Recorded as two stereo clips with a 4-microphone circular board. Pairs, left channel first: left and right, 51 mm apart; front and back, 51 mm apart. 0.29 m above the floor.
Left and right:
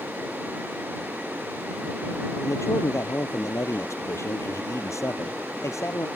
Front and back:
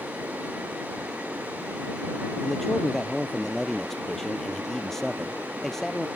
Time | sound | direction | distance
2.4 | a man speaking | 80° left | ?